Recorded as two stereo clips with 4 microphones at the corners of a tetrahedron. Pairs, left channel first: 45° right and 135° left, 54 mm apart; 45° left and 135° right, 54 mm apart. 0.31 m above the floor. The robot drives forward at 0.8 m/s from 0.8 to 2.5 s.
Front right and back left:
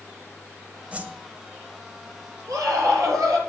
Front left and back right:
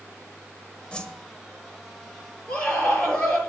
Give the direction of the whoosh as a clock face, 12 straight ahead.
9 o'clock.